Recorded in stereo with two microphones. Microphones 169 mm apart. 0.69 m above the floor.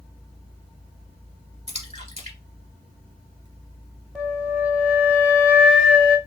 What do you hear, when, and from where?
1.7 s a splash: 45° right (ahead or behind), 1.6 m
4.2 s a flute: 5° right (ahead or behind), 0.9 m